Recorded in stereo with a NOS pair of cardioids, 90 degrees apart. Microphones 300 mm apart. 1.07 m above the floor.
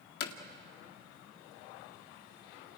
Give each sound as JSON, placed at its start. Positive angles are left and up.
{"t": 0.2, "sound": "hammering", "azimuth_deg": 55, "distance_m": 2.0}